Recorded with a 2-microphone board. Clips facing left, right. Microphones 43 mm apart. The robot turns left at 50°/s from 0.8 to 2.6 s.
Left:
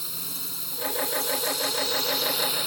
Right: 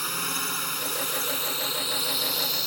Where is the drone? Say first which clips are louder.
Right 10 dB; 105° right; by 2.7 s 165° left.